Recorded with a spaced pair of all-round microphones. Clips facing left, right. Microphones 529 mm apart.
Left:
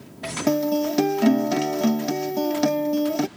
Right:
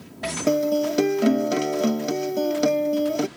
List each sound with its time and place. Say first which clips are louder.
0.5 s a guitar: even; 20° left (ahead or behind)